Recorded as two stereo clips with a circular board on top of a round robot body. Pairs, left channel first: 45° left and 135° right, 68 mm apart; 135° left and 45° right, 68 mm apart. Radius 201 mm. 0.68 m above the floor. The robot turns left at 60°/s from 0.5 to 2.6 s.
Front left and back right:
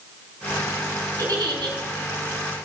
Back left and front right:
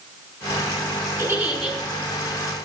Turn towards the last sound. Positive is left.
turn(degrees=175)